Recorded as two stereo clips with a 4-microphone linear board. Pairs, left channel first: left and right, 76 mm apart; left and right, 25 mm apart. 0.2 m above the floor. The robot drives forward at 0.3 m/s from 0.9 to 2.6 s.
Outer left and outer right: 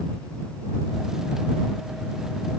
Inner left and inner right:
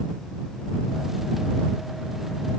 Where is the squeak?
No squeak in this recording.